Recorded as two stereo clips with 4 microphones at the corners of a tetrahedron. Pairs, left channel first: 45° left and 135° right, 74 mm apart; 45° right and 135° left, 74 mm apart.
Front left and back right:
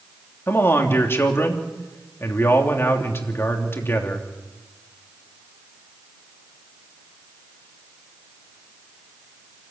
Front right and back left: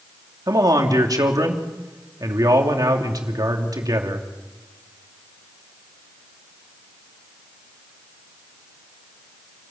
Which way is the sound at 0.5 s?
100° left.